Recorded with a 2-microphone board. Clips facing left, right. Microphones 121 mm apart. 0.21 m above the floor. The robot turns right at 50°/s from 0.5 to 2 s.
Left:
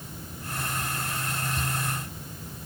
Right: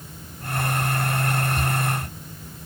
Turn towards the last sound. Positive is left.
No sound to turn to.